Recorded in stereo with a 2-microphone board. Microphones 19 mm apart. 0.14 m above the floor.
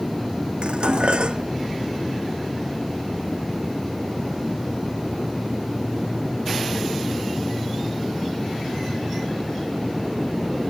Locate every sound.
0.6 s dishes clattering: 55° right (ahead or behind)